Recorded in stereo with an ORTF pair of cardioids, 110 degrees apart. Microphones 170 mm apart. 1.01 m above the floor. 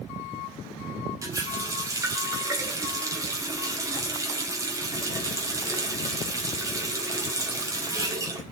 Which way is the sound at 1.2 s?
20° right.